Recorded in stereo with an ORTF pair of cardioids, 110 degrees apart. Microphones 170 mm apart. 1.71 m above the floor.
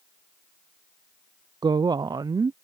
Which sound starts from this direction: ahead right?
A woman speaking, at 1.6 s.